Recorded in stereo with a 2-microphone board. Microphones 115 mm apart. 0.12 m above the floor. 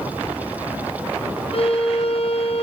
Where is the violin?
60° left (ahead or behind), 3.5 m.